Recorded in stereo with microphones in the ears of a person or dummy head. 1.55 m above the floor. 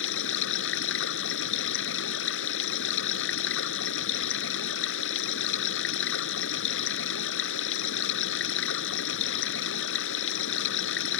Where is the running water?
70° left (ahead or behind).